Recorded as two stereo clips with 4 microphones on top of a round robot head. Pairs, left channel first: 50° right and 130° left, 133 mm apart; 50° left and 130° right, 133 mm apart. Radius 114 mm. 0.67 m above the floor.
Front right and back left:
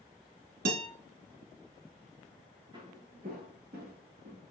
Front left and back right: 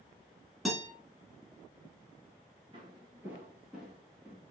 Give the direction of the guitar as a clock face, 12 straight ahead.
7 o'clock.